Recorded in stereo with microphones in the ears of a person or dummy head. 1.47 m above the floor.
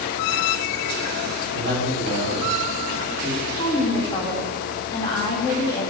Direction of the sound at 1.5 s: 30° right (ahead or behind).